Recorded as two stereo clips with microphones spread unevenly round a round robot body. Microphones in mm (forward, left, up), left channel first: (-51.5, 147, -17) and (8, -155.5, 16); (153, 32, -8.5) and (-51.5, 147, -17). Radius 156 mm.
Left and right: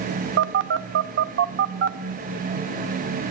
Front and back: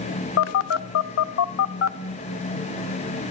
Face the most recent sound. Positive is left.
turn(degrees=-25)